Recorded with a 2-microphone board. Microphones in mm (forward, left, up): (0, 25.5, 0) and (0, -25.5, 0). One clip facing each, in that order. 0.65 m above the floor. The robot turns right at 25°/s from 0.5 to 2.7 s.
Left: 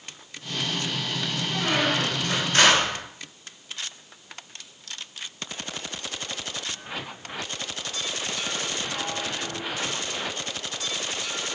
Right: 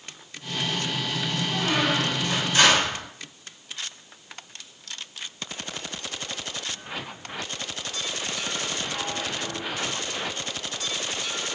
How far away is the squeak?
About 1.6 m.